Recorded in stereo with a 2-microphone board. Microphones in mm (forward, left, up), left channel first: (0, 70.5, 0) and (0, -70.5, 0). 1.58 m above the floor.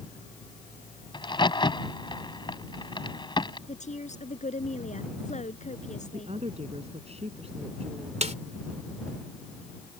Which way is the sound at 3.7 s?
55° left (ahead or behind).